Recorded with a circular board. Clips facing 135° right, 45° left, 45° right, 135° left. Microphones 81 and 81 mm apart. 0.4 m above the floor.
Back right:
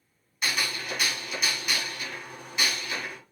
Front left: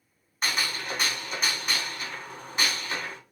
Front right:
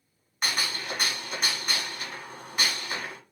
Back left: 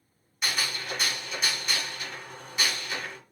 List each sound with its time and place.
0.4 s a gunshot: 5° right, 1.1 m